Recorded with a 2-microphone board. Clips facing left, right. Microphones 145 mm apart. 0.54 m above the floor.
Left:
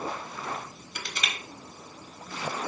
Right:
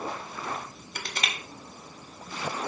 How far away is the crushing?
About 0.6 m.